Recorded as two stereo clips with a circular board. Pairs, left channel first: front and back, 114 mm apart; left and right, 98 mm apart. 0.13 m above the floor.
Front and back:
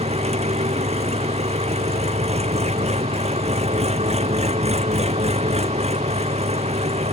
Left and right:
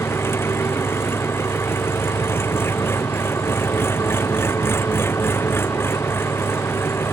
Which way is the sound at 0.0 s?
155° left.